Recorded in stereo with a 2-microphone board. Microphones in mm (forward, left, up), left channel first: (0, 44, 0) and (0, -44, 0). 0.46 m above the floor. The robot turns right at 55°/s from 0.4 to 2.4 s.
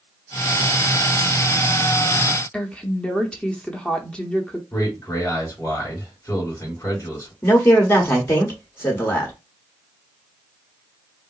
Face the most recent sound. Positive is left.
turn(degrees=25)  # may be behind; listen again after turning